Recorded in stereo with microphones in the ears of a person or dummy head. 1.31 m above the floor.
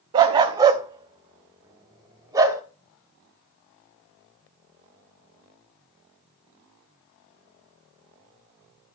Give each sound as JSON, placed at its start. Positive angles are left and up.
{"t": 0.1, "sound": "a dog barking", "side_deg": -25, "distance_m": 0.7}